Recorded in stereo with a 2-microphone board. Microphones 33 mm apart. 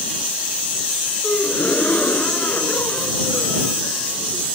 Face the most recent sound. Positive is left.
turn(degrees=55)  # may be behind; listen again after turning